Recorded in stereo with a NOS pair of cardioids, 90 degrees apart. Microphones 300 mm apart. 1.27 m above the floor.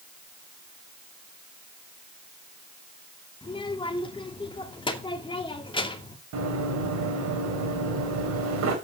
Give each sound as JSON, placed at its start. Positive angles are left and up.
{"t": 3.4, "sound": "a child speaking", "azimuth_deg": 15, "distance_m": 2.5}
{"t": 6.3, "sound": "running footsteps", "azimuth_deg": -60, "distance_m": 5.5}